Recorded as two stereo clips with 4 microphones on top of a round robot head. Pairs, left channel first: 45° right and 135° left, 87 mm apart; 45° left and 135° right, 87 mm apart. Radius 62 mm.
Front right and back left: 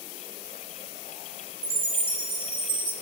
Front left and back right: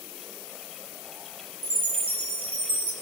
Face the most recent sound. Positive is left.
turn(degrees=160)